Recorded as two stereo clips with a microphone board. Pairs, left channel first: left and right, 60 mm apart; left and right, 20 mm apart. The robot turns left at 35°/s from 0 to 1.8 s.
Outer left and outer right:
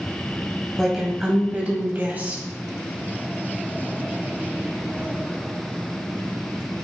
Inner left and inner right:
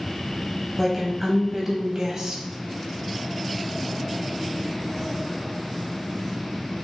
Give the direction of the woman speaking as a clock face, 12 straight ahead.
12 o'clock.